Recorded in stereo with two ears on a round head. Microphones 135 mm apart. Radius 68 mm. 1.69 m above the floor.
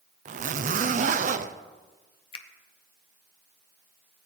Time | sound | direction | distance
0.2 | a zipper | 55° right (ahead or behind) | 0.7 m
2.3 | a finger snap | 40° left (ahead or behind) | 1.0 m